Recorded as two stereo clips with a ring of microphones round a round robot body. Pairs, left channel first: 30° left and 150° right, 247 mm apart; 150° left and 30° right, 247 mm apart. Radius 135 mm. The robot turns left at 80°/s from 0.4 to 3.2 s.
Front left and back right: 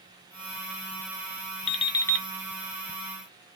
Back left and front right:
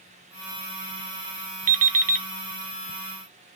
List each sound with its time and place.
1.7 s an alarm clock: 10° right, 0.6 m; by 2.3 s 55° right, 0.6 m